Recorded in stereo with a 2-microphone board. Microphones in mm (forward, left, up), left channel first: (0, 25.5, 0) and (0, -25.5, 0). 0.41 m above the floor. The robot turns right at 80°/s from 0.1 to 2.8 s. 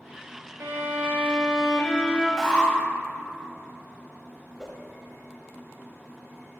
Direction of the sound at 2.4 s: 5° left (ahead or behind).